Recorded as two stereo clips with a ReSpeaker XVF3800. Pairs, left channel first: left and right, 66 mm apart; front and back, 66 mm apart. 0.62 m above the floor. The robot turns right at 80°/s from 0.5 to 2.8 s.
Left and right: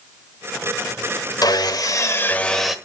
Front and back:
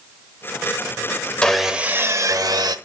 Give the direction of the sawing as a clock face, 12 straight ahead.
9 o'clock.